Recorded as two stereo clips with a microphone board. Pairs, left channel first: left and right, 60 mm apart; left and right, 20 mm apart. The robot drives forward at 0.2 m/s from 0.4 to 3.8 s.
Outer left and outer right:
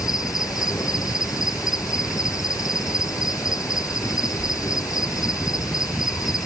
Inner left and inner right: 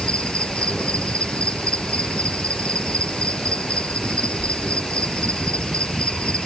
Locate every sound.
0.0 s an insect: 75° left (ahead or behind); by 6.5 s 70° left (ahead or behind)